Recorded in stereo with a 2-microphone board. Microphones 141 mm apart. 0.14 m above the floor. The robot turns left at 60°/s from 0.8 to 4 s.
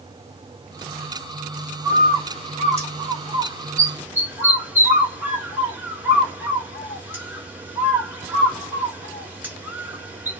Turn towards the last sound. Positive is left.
turn(degrees=-10)  # may be behind; listen again after turning